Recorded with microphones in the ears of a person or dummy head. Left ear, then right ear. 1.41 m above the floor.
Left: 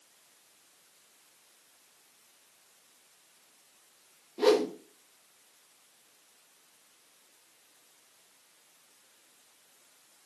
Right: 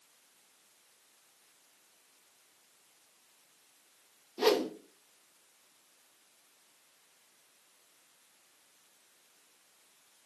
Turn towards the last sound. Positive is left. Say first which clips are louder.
# left 3 dB
turn(degrees=-25)  # may be behind; listen again after turning